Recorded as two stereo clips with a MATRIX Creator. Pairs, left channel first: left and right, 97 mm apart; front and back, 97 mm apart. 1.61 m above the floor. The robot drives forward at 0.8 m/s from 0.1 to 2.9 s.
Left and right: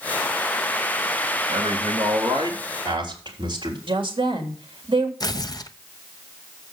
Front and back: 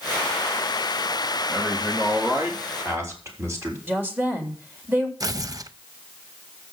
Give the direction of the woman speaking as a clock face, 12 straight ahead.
4 o'clock.